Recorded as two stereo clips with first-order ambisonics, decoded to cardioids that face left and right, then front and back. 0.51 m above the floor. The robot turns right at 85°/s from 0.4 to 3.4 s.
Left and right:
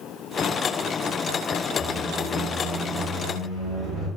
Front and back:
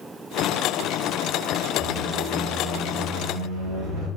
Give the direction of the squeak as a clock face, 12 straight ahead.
10 o'clock.